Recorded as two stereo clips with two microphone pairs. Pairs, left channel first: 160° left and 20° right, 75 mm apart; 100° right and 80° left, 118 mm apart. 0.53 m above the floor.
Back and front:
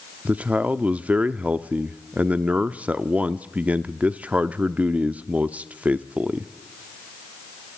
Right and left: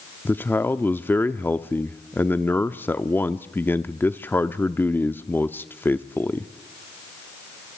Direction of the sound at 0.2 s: 55° right.